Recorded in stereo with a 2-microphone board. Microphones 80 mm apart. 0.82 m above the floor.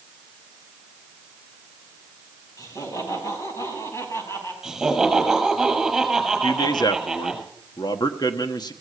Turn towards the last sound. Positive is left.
turn(degrees=60)  # may be behind; listen again after turning